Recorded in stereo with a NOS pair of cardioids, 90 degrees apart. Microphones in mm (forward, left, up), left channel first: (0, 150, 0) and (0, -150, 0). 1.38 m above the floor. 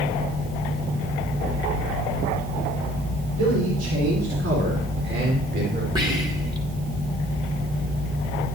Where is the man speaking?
55° right, 4.5 m; by 5.8 s 35° right, 4 m.